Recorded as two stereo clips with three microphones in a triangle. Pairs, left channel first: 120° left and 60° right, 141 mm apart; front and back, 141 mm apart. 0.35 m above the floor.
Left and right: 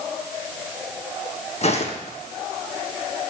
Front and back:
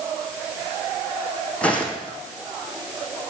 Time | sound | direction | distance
1.6 | footsteps | 80° left | 1.2 m